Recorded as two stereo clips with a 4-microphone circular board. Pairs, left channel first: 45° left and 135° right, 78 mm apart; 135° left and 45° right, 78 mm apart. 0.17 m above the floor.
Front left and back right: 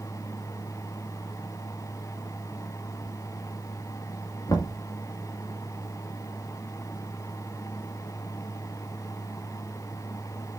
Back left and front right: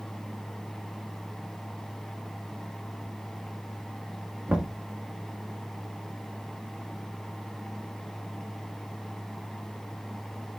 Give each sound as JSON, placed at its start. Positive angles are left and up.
{"t": 4.5, "sound": "knocking", "azimuth_deg": 20, "distance_m": 2.0}